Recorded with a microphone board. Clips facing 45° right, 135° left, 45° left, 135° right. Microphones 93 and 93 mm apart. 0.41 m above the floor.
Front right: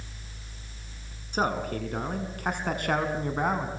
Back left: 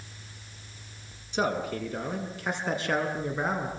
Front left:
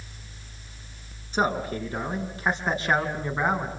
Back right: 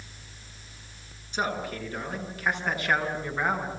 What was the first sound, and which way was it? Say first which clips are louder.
A man speaking: even, front left 5 dB; 5° right.